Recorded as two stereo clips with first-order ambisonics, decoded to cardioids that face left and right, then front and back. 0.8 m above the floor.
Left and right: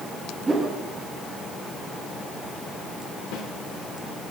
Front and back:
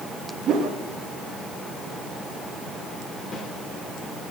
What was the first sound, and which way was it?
A whoosh, 160° right.